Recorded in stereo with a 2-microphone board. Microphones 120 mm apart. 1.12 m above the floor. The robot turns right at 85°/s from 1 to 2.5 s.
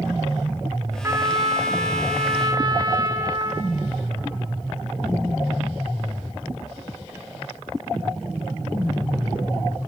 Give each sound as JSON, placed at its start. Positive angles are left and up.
{"t": 1.0, "sound": "a trumpet", "azimuth_deg": -160, "distance_m": 1.4}